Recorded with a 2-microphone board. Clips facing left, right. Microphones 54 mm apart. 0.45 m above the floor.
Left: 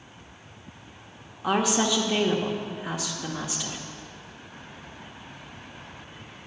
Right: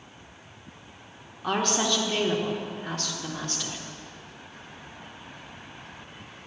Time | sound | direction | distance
1.4 | a woman speaking | 10° left (ahead or behind) | 0.8 m